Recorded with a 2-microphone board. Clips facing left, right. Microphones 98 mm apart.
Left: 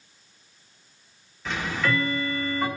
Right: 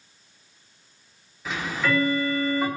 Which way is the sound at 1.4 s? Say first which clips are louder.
Right 1 dB; 5° right (ahead or behind).